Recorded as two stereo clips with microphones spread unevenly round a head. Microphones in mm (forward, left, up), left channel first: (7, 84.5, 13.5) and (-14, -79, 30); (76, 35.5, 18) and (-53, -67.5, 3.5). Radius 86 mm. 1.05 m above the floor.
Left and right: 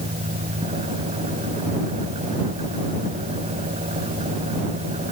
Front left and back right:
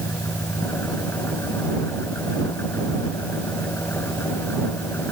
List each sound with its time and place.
0.0 s an engine running: 40° right